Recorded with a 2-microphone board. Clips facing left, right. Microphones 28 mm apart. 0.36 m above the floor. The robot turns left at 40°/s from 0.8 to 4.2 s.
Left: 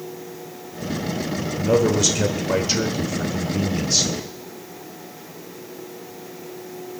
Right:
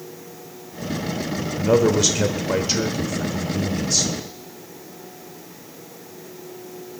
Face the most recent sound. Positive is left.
turn(degrees=25)  # may be behind; listen again after turning